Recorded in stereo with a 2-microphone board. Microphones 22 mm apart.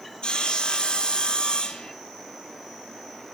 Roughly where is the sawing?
Left.